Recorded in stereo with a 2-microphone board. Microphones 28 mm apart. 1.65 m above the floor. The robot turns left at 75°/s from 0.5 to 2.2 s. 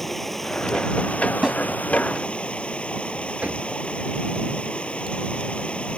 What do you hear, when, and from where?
0.0 s running water: 170° left; by 6.0 s 45° left
1.4 s a snare drum: 15° right (ahead or behind); by 1.6 s centre (ahead or behind)
3.4 s knocking: 50° right (ahead or behind)